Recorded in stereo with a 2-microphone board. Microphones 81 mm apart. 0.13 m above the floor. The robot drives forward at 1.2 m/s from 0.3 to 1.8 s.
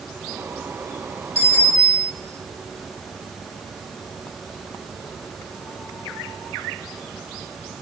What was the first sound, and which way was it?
A bicycle bell, 35° right (ahead or behind).